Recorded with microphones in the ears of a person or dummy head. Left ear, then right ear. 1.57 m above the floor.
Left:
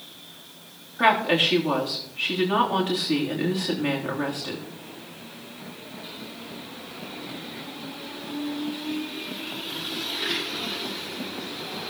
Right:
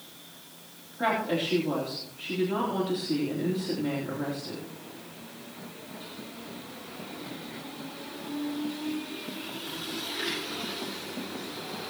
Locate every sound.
1.0 s a woman speaking: 45° left (ahead or behind), 3 m